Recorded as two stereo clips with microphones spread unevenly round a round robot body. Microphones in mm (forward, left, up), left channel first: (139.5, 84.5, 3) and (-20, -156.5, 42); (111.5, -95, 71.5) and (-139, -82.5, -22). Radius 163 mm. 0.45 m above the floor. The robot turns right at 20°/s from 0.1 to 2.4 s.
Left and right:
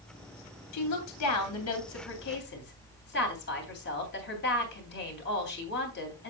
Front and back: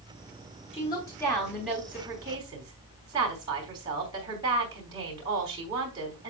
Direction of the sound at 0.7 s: 75° left.